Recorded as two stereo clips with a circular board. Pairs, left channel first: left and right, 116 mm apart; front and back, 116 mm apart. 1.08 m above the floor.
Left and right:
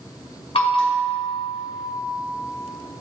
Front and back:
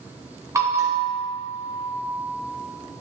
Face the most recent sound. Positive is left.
turn(degrees=120)